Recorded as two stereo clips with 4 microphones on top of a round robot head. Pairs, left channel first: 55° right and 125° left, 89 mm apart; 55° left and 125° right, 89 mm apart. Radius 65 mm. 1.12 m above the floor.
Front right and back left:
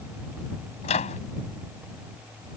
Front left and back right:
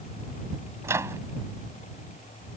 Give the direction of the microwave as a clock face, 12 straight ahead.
2 o'clock.